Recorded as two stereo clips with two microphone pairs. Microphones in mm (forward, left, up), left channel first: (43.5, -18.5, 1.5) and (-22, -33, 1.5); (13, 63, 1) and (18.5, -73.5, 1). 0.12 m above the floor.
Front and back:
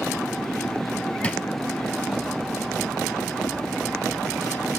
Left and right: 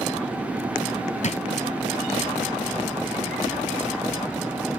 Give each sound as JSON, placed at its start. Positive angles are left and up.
{"t": 1.2, "sound": "a drawer", "azimuth_deg": 80, "distance_m": 0.8}